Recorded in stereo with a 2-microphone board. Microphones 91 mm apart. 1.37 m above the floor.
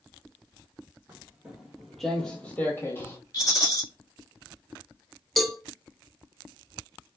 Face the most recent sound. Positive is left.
turn(degrees=0)  # may be behind; listen again after turning